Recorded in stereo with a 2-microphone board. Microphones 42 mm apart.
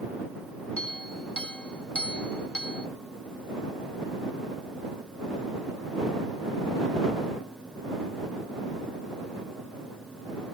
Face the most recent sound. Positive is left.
turn(degrees=30)  # may be behind; listen again after turning